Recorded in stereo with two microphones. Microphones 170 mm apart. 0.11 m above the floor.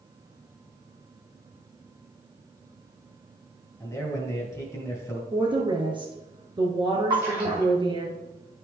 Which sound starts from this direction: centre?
A man speaking, at 3.8 s.